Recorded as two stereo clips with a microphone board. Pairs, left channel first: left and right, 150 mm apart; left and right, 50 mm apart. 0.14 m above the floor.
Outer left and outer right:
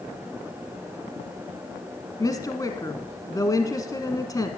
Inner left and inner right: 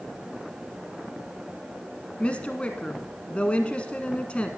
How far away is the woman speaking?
About 1.1 m.